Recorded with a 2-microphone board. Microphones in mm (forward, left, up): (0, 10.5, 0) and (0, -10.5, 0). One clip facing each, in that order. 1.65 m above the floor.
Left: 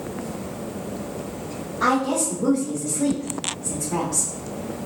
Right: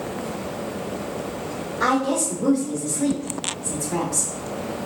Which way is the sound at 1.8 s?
35° right (ahead or behind).